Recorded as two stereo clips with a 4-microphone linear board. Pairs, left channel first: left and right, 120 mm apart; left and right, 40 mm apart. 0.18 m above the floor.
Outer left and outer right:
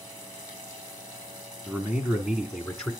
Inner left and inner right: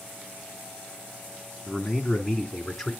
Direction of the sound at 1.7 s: 15° right (ahead or behind).